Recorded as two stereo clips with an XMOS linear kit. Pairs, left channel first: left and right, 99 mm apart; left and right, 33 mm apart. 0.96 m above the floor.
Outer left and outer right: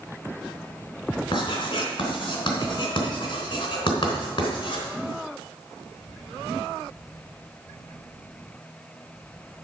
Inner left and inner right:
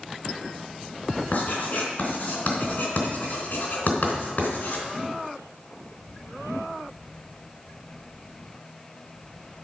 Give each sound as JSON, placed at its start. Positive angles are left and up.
{"t": 1.3, "sound": "writing", "side_deg": 50, "distance_m": 3.5}